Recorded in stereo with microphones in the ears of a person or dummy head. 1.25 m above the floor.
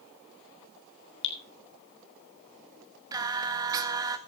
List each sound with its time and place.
1.2 s dripping: 70° left (ahead or behind), 3.5 m
3.1 s singing: 20° right (ahead or behind), 1.4 m